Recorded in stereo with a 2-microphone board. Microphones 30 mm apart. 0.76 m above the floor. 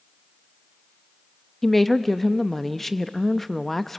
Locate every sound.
1.6 s a woman speaking: 10° left (ahead or behind), 0.6 m